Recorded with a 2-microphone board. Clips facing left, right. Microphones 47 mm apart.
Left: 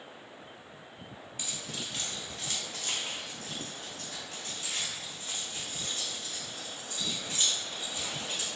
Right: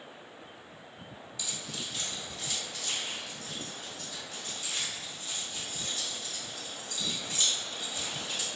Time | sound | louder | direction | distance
1.4 | keys jangling | even | 45° left (ahead or behind) | 1.2 m